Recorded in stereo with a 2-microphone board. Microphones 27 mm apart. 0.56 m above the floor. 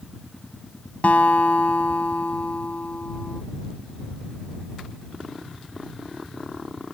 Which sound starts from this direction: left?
A guitar, at 1.0 s.